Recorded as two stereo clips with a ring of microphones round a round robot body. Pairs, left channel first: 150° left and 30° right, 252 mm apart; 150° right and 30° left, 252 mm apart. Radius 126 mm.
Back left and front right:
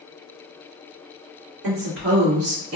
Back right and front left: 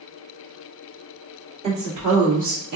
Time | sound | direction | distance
1.6 | a woman speaking | 35° right | 1.5 m